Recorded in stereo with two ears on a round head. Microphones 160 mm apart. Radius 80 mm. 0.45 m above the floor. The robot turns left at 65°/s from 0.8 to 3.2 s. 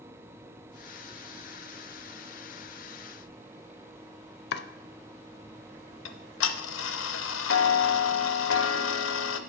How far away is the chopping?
About 0.6 m.